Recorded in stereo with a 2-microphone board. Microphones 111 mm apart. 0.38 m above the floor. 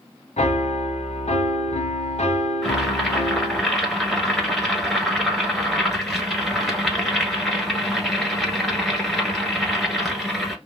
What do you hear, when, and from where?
0.4 s a piano: 85° left, 0.7 m
2.6 s boiling: centre (ahead or behind), 1.2 m